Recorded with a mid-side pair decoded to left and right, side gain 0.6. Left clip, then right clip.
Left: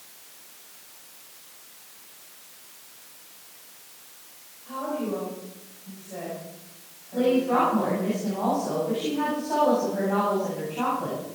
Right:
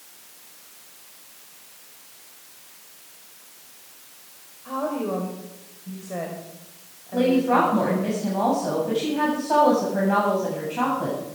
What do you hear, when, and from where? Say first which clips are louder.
4.7 s a woman speaking: right 3 dB; 45° right, 5.5 m
7.1 s a woman speaking: right 2 dB; 35° right, 7 m